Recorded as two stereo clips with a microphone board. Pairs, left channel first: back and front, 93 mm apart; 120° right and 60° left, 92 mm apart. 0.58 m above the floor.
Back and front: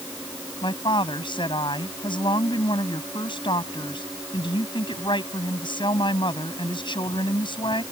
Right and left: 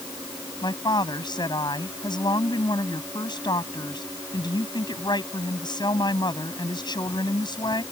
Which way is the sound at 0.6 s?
155° right.